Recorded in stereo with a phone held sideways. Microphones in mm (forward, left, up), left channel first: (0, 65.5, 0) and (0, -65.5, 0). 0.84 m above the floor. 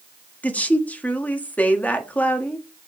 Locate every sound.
0.4 s a woman speaking: 10° left (ahead or behind), 1.4 m